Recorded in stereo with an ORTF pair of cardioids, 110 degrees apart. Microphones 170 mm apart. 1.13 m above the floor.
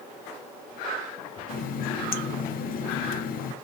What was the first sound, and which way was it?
A running tap, 60° left.